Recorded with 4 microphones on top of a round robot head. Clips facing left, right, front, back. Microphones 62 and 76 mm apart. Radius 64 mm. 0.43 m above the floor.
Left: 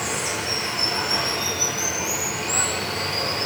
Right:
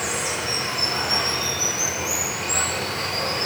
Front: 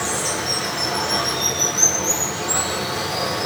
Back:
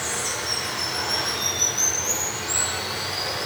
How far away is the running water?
About 9 m.